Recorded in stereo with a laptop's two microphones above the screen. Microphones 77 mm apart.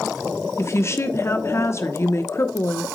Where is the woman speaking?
35° left (ahead or behind), 0.9 m.